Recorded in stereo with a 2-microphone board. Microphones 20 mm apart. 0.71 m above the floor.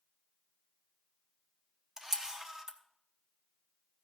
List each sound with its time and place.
2.0 s a camera shutter: 25° right (ahead or behind), 1.0 m